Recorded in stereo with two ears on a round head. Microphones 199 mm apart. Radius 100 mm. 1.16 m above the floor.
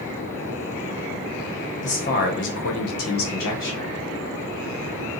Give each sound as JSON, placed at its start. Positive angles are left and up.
{"t": 1.8, "sound": "a man speaking", "side_deg": 30, "distance_m": 0.9}